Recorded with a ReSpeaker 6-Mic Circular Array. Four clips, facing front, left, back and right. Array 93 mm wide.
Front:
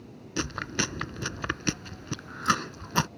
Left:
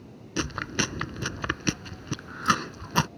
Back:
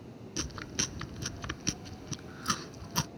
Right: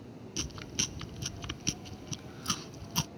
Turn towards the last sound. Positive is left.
turn(degrees=60)